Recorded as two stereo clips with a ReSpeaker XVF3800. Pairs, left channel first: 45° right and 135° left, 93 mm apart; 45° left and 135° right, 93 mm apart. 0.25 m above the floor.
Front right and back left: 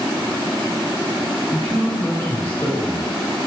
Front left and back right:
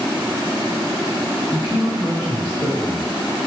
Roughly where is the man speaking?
Right.